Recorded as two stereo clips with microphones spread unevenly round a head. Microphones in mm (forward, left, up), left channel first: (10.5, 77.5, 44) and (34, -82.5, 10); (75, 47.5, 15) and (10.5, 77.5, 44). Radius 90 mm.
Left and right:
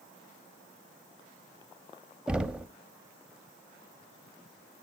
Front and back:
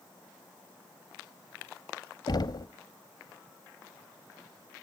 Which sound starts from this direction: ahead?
Knocking, at 2.3 s.